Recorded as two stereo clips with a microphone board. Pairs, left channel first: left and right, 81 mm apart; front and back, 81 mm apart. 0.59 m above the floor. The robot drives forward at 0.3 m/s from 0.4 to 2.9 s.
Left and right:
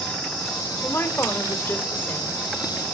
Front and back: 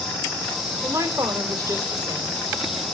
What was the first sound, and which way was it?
A woman speaking, 145° left.